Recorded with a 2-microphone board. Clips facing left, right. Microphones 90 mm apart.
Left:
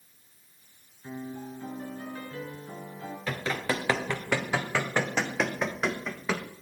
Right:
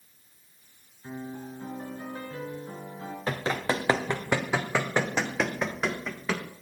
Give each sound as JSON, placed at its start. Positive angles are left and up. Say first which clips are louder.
{"t": 1.0, "sound": "a piano", "louder": "even", "side_deg": -25, "distance_m": 4.0}
{"t": 3.3, "sound": "running footsteps", "louder": "right 2 dB", "side_deg": -35, "distance_m": 2.5}